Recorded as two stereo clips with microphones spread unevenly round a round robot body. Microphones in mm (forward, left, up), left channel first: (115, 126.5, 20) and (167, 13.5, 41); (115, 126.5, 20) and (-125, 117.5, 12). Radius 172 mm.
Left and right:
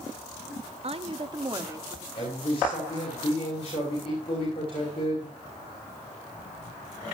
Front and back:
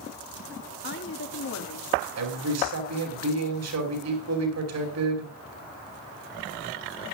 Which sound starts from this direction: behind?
A man speaking, at 2.2 s.